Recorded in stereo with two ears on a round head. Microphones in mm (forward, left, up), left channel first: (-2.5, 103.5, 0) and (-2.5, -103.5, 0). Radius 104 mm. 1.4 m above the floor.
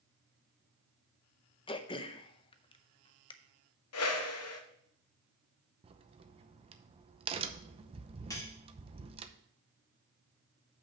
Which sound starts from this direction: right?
A crack, at 5.8 s.